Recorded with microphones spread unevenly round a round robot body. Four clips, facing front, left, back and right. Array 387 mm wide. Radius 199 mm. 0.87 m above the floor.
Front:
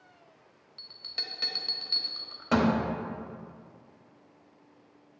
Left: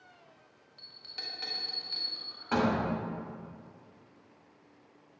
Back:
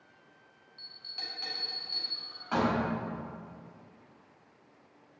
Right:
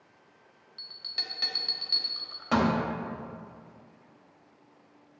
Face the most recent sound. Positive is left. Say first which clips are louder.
# right 3 dB, front 2 dB
turn(degrees=-20)